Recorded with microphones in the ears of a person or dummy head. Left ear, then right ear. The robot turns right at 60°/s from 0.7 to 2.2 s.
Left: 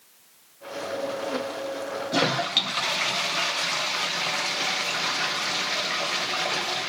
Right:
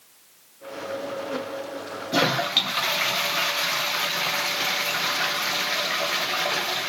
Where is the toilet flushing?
5° right (ahead or behind), 0.8 m; by 6.9 s centre (ahead or behind), 0.8 m.